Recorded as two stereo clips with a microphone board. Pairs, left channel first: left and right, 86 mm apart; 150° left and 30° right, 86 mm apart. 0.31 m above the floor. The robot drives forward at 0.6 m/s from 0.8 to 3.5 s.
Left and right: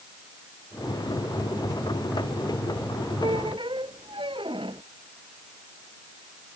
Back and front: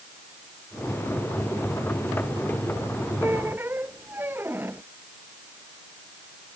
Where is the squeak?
90° right; by 4.8 s 95° right.